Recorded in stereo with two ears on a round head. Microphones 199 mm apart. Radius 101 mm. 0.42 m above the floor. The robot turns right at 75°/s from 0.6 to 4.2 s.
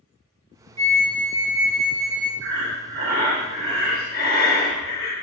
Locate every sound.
0.8 s a flute: 70° right, 0.7 m; by 2.3 s 45° left, 0.7 m
2.4 s breathing: 90° right, 0.9 m; by 5.1 s 45° left, 0.9 m